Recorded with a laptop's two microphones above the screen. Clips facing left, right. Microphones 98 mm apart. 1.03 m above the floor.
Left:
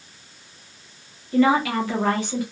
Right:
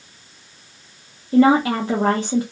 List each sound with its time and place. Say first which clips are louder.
1.3 s a woman speaking: right 4 dB; 30° right (ahead or behind), 0.5 m